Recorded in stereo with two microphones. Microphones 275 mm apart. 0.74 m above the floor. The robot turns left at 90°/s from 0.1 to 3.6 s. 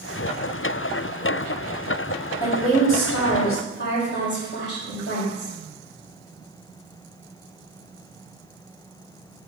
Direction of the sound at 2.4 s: 150° left.